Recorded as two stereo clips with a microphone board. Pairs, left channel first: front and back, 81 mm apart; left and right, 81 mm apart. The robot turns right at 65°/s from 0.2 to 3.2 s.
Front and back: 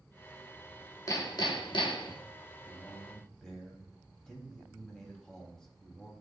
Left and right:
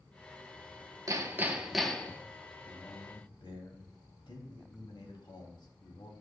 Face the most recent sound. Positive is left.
turn(degrees=85)